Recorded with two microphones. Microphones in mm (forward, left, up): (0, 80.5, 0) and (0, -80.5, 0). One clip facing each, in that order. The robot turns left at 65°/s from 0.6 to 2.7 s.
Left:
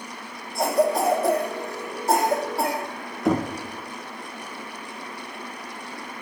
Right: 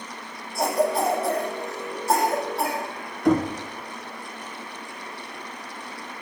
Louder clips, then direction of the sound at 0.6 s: Left 2 dB; 20° left (ahead or behind).